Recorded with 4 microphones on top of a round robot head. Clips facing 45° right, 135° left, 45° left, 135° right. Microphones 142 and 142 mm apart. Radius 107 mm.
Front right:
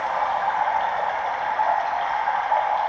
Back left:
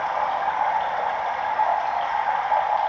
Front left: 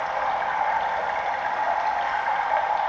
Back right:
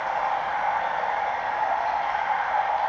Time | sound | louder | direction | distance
0.0 | running water | front right 1 dB, even | 45° left | 1.3 m